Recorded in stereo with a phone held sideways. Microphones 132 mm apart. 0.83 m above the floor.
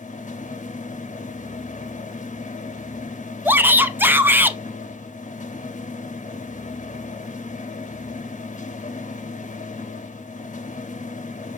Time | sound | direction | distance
0.0 | a machine running | 75° left (ahead or behind) | 0.7 m
3.5 | a shout | 15° right (ahead or behind) | 0.6 m